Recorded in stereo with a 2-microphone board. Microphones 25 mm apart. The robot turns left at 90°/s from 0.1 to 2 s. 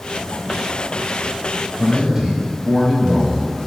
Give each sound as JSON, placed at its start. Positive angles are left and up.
{"t": 1.8, "sound": "a man speaking", "side_deg": -15, "distance_m": 1.8}